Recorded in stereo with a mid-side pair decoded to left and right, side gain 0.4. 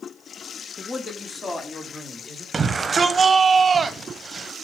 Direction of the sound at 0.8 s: 40° left.